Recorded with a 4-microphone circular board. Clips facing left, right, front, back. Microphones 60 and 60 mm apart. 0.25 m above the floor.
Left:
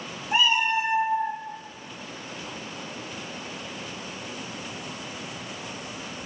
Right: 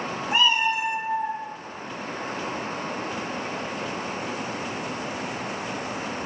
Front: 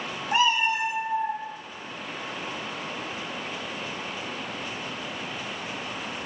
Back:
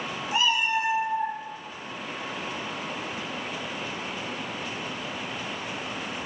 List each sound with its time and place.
0.3 s a cat meowing: straight ahead, 0.7 m; by 1.4 s 110° left, 0.9 m